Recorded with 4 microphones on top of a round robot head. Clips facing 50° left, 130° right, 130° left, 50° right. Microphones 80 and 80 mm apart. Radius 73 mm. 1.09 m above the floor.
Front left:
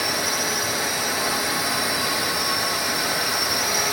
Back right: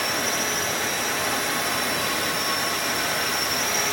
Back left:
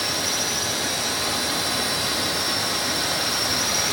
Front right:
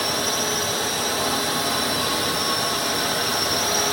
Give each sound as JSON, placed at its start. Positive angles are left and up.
{"t": 0.0, "sound": "a drone", "azimuth_deg": -30}